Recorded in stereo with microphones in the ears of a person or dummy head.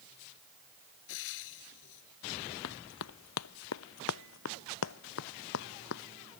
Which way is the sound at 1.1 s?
70° left (ahead or behind).